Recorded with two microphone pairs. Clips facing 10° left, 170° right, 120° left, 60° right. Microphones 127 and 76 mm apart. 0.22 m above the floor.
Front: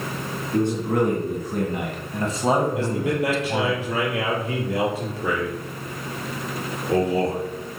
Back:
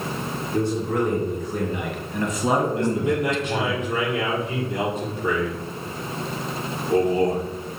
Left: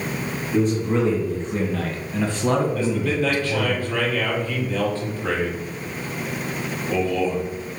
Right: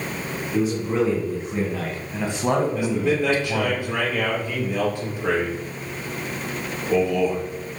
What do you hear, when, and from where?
0.5 s a man speaking: 25° left, 3 m; by 3.8 s 90° right, 1.9 m
2.8 s a man speaking: 10° left, 5 m